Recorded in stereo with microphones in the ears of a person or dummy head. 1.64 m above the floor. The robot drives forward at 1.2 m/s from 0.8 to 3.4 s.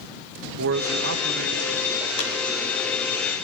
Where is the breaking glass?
I don't hear breaking glass.